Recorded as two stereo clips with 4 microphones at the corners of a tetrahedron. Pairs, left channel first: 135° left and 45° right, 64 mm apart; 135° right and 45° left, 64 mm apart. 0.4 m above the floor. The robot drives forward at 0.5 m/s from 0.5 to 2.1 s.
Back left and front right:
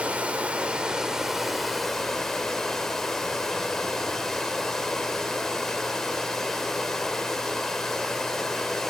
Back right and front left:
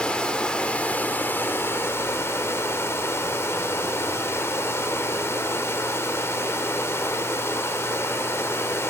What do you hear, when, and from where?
0.0 s running water: 80° right, 1.2 m; by 8.9 s 145° right, 1.4 m